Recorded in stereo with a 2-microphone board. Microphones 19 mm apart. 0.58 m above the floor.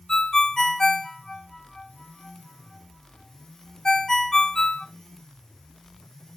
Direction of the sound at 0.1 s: 35° left (ahead or behind).